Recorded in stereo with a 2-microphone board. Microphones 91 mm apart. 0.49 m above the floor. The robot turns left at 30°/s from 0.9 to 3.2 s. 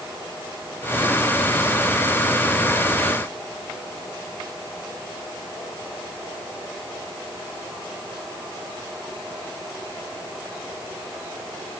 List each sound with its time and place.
Only background noise.